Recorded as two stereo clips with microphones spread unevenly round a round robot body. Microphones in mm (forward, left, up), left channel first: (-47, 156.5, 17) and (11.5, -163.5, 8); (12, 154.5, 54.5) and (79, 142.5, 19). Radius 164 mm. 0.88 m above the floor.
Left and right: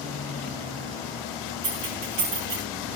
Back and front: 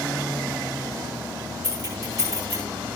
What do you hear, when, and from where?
1.6 s keys jangling: 130° right, 6 m